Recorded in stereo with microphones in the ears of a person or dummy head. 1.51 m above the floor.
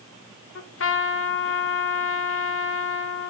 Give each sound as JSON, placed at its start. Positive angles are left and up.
{"t": 0.6, "sound": "a trumpet", "side_deg": 60, "distance_m": 0.8}